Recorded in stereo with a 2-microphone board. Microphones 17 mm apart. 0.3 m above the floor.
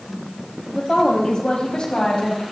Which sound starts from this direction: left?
A woman speaking, at 0.7 s.